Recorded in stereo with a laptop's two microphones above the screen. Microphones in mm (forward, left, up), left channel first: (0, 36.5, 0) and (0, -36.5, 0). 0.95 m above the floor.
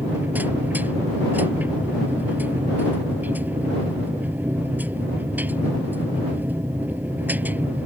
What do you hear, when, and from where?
0.0 s a machine running: 25° right (ahead or behind)